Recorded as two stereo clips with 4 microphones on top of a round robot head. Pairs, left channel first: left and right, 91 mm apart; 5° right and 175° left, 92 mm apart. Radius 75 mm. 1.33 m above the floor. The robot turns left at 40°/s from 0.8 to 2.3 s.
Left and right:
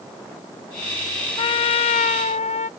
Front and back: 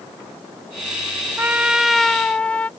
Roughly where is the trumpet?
Left.